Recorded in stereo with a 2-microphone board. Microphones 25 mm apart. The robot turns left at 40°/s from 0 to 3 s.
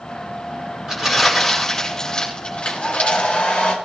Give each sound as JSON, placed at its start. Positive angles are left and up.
{"t": 0.9, "sound": "crumpling", "side_deg": -25, "distance_m": 9.0}
{"t": 2.6, "sound": "a hair dryer", "side_deg": 40, "distance_m": 5.5}